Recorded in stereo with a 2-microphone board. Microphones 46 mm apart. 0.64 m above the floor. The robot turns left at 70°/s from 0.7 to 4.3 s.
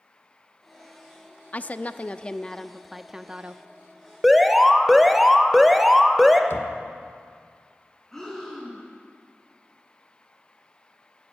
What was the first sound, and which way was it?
A woman speaking, 95° left.